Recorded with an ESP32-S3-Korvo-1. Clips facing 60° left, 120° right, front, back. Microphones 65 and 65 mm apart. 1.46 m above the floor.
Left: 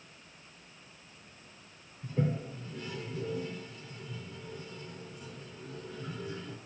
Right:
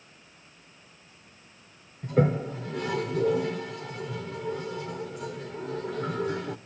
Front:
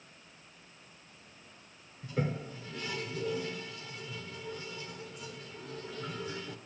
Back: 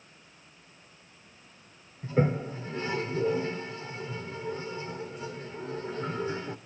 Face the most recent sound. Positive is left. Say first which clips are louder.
# right 9 dB, back 8 dB
turn(degrees=-125)